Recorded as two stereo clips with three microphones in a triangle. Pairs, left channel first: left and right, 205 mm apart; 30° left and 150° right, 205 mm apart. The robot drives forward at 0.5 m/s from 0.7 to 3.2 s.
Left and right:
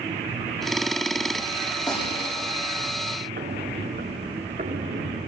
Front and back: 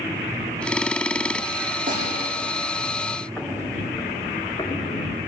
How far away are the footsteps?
About 4.5 m.